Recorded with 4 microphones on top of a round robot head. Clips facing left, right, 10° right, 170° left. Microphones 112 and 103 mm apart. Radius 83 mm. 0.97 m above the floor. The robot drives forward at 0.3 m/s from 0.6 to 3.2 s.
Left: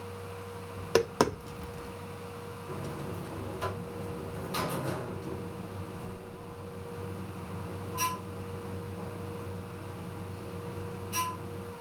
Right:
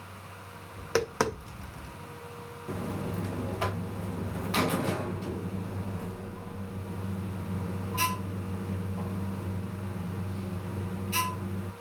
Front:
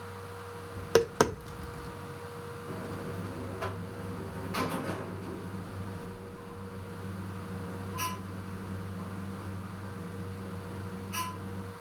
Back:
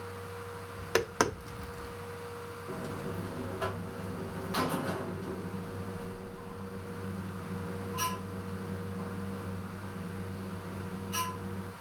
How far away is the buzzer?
About 0.7 m.